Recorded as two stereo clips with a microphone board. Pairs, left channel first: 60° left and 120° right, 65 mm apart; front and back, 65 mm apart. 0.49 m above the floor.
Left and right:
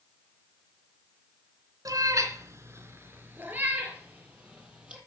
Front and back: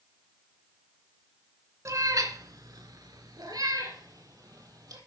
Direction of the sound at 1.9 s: 140° right.